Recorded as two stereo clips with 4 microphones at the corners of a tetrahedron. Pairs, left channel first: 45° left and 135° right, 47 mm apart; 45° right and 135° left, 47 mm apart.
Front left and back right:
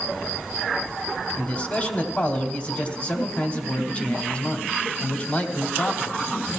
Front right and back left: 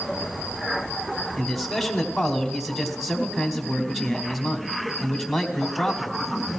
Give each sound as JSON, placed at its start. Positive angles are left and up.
{"t": 1.4, "sound": "a man speaking", "azimuth_deg": 45, "distance_m": 1.4}